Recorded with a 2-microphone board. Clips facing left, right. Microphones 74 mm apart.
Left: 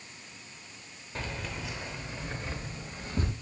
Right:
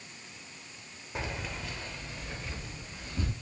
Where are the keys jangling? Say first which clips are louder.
Even; 15° right (ahead or behind), 0.6 m; by 3.3 s 45° left (ahead or behind), 1.3 m.